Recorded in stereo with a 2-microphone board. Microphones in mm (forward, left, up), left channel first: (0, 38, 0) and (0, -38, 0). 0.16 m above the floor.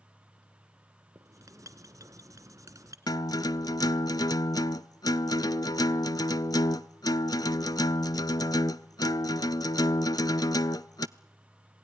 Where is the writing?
50° right (ahead or behind), 1.4 m.